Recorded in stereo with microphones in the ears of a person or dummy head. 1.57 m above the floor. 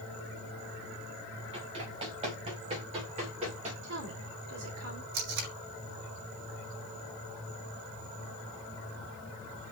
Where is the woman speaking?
70° right (ahead or behind), 4.5 m.